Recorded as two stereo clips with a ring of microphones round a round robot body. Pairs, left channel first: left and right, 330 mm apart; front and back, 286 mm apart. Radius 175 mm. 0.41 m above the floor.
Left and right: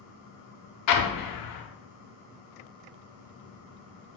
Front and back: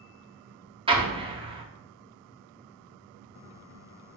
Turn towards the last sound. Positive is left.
turn(degrees=110)